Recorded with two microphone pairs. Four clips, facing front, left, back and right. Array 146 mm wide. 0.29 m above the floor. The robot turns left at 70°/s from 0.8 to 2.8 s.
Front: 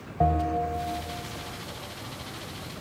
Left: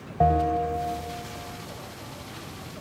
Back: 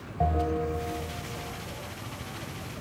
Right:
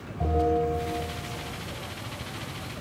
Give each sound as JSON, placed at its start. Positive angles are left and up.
{"t": 0.2, "sound": "a bell", "azimuth_deg": 100, "distance_m": 2.0}